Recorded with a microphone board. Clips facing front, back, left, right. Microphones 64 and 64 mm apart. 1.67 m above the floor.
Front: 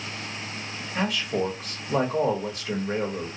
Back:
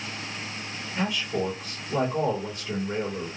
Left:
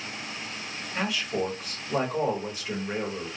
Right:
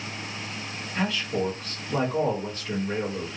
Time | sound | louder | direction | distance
0.9 | a man speaking | front 2 dB, right 1 dB | 10° left | 1.0 m